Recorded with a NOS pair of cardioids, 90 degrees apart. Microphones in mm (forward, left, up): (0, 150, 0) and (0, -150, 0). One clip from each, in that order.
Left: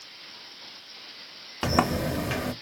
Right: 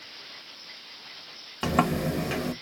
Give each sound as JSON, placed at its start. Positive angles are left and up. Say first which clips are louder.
{"t": 1.6, "sound": "a sliding door", "louder": "left 1 dB", "azimuth_deg": 15, "distance_m": 1.0}